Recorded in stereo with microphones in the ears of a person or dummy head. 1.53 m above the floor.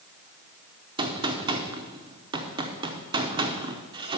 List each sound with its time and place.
1.0 s a gunshot: 20° right (ahead or behind), 0.7 m